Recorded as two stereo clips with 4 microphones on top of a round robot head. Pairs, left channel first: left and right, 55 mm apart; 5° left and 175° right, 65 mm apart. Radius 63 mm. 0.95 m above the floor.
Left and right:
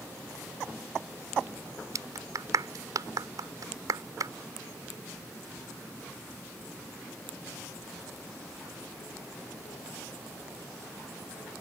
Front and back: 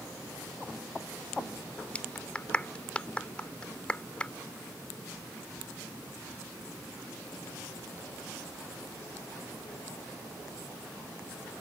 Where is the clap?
70° right.